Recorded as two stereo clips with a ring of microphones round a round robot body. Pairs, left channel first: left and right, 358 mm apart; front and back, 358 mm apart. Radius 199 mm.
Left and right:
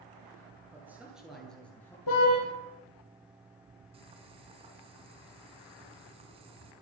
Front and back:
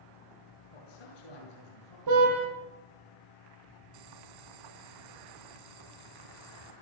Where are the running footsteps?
I don't hear running footsteps.